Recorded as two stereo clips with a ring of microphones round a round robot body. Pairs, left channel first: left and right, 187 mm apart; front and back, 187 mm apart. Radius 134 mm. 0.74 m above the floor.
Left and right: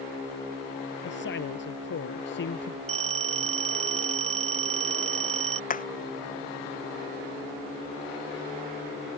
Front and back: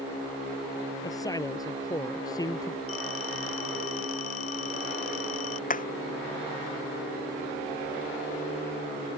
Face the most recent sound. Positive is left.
turn(degrees=45)